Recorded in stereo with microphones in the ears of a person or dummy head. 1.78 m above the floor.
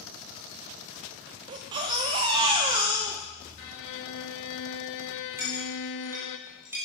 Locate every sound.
1.5 s a baby crying: 20° right (ahead or behind), 0.6 m
3.6 s a violin: 65° left (ahead or behind), 0.8 m
5.4 s a clink: 15° right (ahead or behind), 4 m